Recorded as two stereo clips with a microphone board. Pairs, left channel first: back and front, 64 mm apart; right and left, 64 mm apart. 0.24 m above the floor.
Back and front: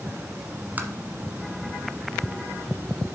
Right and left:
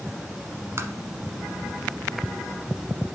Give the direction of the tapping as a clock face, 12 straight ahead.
10 o'clock.